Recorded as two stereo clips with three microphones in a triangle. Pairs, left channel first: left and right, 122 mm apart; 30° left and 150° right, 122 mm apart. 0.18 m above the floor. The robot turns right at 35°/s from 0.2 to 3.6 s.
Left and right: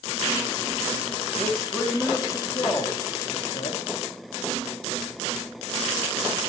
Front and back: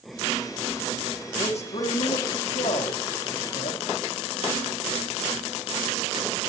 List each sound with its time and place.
1.4 s a man speaking: 10° right, 7 m; by 3.9 s 70° left, 7 m